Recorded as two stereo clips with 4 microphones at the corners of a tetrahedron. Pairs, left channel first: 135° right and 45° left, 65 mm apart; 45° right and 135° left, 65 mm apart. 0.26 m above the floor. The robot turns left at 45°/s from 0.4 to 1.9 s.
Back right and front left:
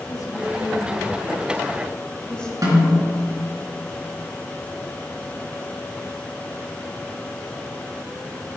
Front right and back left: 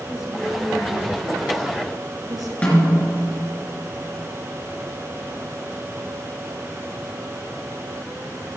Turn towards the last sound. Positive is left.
turn(degrees=20)